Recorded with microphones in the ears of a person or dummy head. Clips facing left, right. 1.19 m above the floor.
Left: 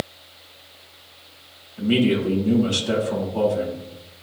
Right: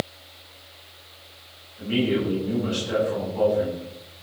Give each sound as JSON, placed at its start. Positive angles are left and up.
{"t": 1.8, "sound": "a man speaking", "side_deg": 75, "distance_m": 7.5}